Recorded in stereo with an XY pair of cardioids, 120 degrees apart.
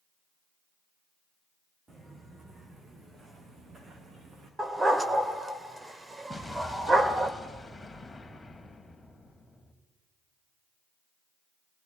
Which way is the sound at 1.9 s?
20° right.